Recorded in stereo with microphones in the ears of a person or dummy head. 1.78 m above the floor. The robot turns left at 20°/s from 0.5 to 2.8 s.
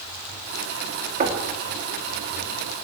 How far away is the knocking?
About 4 m.